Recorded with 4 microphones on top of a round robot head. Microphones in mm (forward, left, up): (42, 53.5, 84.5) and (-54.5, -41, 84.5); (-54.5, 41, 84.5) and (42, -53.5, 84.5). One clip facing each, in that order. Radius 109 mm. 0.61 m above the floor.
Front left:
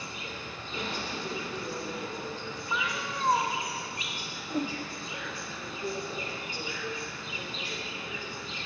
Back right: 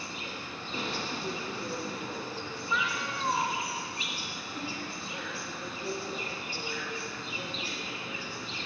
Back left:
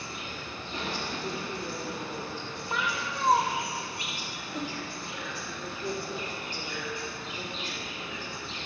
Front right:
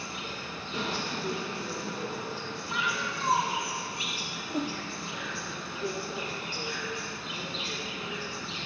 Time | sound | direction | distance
0.0 | an insect | 75° right | 1.4 m
2.7 | a cat meowing | 100° left | 0.5 m
4.5 | a whoosh | straight ahead | 0.7 m